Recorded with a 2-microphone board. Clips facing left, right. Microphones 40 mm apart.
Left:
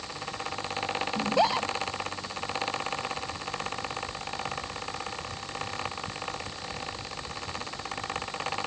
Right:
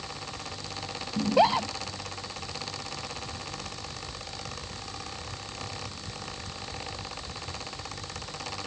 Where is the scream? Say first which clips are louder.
Right 3 dB; 10° right (ahead or behind).